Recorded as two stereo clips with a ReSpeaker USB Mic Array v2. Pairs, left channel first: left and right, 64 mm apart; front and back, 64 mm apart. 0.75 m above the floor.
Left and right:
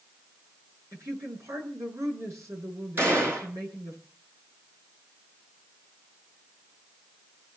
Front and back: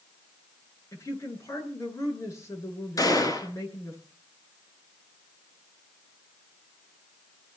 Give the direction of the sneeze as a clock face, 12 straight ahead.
I don't hear a sneeze.